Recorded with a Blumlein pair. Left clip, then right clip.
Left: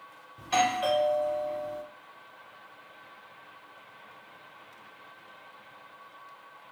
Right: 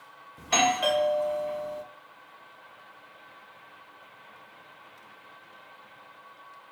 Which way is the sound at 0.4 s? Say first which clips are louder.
Right 2 dB; 15° right.